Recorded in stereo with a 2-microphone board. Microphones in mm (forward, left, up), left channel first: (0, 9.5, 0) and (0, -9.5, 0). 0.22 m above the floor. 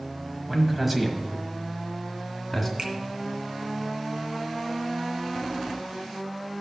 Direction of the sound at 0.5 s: 20° right (ahead or behind).